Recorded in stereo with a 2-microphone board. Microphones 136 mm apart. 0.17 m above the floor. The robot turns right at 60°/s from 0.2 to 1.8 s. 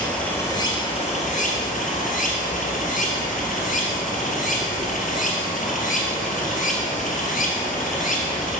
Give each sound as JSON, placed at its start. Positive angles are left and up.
{"t": 0.0, "sound": "running water", "azimuth_deg": 5, "distance_m": 1.3}